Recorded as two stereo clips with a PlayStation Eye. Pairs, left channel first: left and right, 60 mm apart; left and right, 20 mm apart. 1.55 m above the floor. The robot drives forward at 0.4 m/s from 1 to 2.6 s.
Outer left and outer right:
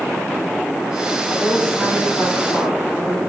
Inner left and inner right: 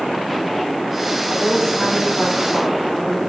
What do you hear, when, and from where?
1.3 s a woman speaking: 35° left (ahead or behind), 2 m; by 3.2 s 25° left (ahead or behind), 2.5 m